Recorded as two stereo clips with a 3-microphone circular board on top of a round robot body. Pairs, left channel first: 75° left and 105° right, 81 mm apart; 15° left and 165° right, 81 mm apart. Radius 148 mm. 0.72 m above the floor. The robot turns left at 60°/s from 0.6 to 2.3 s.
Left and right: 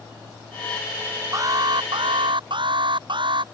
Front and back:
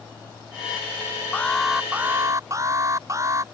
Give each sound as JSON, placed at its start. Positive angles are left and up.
{"t": 1.3, "sound": "an alarm", "azimuth_deg": -55}